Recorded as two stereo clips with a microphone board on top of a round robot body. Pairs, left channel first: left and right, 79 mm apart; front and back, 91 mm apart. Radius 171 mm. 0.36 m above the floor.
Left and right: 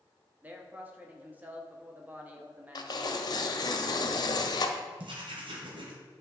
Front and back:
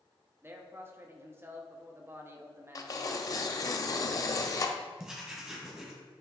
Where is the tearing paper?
50° left, 0.7 m.